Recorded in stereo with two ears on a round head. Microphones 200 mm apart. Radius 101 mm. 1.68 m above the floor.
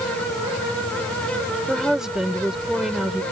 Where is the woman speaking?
Centre (ahead or behind).